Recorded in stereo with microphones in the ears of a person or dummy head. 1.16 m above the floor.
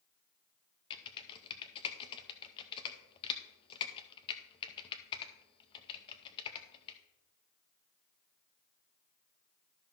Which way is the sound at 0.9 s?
25° left (ahead or behind).